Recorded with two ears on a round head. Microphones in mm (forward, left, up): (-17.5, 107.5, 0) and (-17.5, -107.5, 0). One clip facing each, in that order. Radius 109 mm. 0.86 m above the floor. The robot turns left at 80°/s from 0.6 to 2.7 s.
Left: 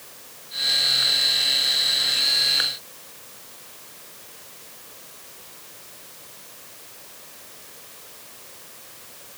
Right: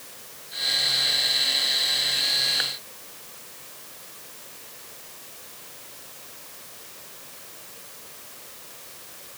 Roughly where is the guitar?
No guitar in this recording.